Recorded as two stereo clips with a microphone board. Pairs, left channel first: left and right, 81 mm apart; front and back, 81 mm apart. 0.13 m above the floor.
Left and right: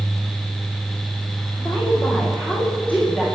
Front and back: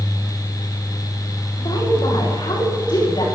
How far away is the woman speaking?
About 10 m.